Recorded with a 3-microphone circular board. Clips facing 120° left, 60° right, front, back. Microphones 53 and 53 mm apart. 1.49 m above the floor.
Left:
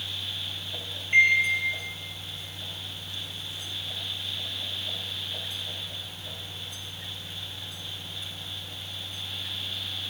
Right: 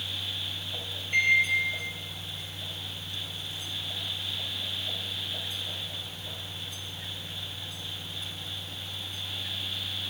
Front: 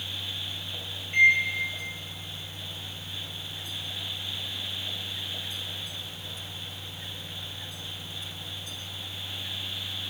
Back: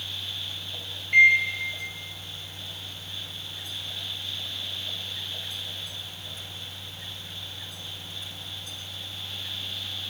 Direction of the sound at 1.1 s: 175° left.